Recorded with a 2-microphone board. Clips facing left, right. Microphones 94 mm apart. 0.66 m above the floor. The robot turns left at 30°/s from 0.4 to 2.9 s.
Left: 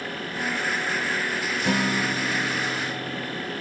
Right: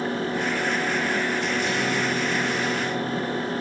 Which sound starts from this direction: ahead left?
A guitar, at 1.6 s.